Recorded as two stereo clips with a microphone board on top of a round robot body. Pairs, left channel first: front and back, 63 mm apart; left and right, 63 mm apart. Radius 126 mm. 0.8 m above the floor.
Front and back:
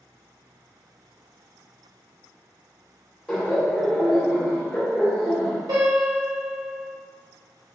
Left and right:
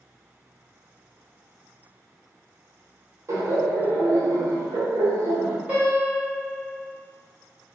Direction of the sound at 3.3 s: 90° right.